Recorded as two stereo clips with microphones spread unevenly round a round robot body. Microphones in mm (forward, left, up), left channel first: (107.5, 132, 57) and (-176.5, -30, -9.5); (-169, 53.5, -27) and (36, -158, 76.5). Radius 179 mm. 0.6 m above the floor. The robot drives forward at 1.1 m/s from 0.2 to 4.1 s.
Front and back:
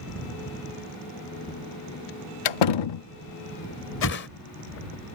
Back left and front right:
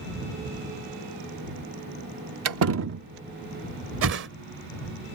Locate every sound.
2.5 s a door slam: 10° left; by 3.0 s 30° left
4.0 s a whoosh: 15° right